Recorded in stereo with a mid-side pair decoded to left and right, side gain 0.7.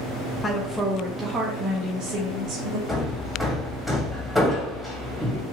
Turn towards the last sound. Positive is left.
turn(degrees=0)